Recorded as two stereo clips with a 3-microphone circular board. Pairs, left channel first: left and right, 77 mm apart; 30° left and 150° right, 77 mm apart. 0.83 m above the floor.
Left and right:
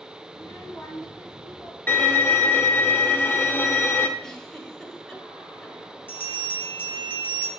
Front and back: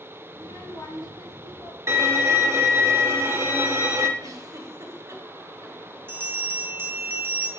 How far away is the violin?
About 0.7 m.